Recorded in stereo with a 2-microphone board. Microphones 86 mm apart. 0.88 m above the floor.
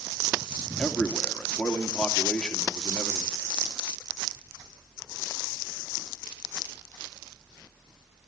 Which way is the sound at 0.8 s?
10° left (ahead or behind).